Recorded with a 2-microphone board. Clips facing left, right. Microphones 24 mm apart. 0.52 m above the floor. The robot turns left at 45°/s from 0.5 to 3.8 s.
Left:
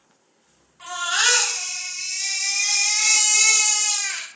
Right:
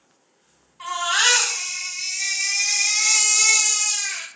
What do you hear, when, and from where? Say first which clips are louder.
0.8 s a baby crying: right 2 dB; 105° right, 1.4 m; by 4.3 s 120° left, 1.4 m